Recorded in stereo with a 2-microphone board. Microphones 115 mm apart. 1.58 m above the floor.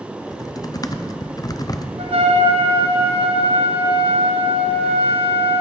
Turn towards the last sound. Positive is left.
turn(degrees=-60)  # may be behind; listen again after turning